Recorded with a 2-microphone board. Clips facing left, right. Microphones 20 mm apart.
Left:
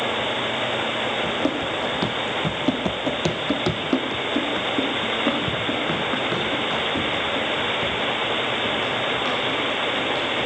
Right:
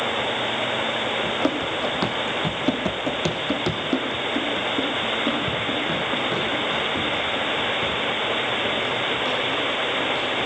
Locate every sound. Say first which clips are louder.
1.2 s running footsteps: even; 20° right (ahead or behind), 1.5 m; by 10.5 s 20° left (ahead or behind), 6.5 m